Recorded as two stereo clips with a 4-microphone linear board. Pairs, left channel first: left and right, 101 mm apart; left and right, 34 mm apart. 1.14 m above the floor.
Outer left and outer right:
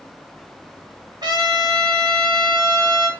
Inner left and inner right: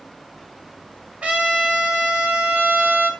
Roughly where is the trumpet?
Right.